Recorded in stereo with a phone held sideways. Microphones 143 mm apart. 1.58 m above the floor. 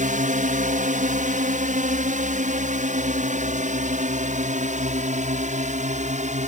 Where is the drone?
65° right (ahead or behind); by 6.5 s 55° right (ahead or behind).